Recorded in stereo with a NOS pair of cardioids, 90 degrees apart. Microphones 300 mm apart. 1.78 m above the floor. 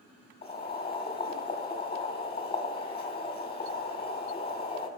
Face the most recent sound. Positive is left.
turn(degrees=35)